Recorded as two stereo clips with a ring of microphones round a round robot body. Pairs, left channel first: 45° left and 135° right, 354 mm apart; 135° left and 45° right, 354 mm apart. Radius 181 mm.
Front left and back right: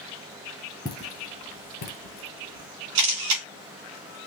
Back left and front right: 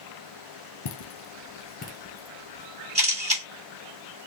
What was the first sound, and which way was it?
Footsteps, 120° left.